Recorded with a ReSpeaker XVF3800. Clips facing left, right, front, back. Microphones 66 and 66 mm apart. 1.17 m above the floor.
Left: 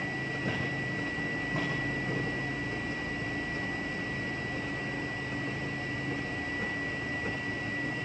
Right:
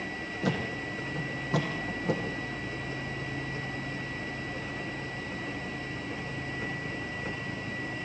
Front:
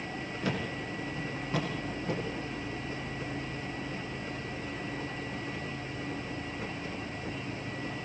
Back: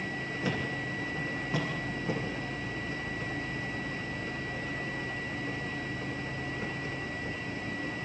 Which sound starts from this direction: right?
A thud, at 0.4 s.